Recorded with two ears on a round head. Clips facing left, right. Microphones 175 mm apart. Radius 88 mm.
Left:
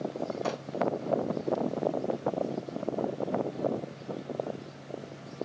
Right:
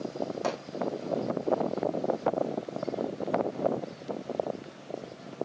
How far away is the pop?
About 8.5 m.